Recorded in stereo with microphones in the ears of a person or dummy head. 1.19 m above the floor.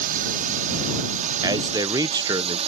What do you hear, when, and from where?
0.0 s a drone: 45° right (ahead or behind); by 2.7 s 35° right (ahead or behind)
1.4 s a man speaking: 15° right (ahead or behind)